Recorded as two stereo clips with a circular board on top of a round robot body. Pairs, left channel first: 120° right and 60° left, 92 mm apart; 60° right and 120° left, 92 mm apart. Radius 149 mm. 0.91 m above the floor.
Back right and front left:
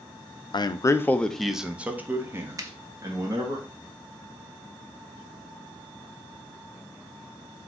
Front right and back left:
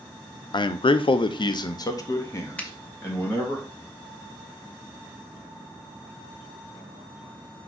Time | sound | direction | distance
0.5 | a man speaking | 90° right | 0.5 m
2.6 | a finger snap | 15° left | 0.8 m